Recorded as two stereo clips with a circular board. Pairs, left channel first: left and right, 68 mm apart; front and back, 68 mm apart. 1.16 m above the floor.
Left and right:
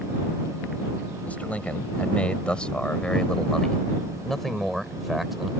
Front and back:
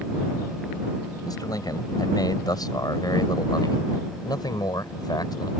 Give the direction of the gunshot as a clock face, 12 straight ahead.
No gunshot in this recording.